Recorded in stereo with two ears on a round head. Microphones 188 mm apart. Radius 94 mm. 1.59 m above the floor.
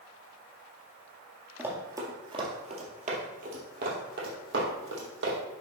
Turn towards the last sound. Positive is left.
turn(degrees=-60)  # may be behind; listen again after turning